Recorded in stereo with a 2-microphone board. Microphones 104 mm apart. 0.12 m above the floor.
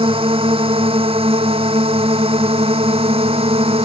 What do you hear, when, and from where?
0.0 s a drone: 70° right (ahead or behind); by 3.9 s 80° right